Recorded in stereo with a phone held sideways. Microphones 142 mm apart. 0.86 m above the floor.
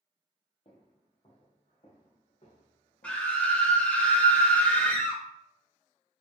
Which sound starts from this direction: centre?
A scream, at 3.0 s.